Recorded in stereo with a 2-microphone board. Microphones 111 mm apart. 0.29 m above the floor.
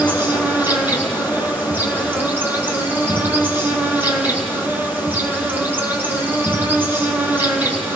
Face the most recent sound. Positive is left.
turn(degrees=-20)  # may be behind; listen again after turning